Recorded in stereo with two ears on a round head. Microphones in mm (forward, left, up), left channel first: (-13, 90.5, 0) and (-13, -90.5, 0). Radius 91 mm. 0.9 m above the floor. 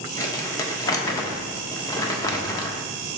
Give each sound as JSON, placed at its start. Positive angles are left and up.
{"t": 0.2, "sound": "crumpling", "side_deg": 15, "distance_m": 0.9}